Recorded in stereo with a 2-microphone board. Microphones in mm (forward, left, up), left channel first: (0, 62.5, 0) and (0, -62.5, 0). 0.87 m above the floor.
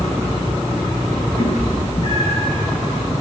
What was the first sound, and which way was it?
A cat meowing, 50° left (ahead or behind).